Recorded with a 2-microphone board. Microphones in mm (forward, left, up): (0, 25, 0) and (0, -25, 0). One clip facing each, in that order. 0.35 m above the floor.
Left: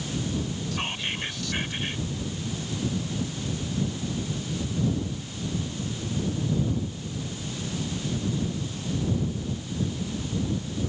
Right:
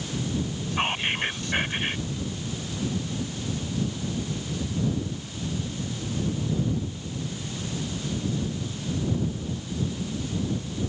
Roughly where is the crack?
I don't hear a crack.